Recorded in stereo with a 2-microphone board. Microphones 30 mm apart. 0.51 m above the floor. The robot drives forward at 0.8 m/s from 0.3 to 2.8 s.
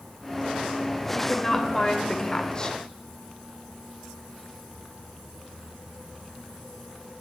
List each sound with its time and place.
1.1 s a woman speaking: 15° left (ahead or behind), 2 m; by 2.8 s 30° left (ahead or behind), 1.3 m